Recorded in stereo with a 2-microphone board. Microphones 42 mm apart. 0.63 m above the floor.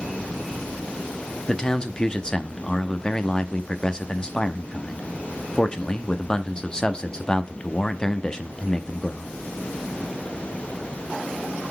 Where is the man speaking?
20° left (ahead or behind), 0.6 m.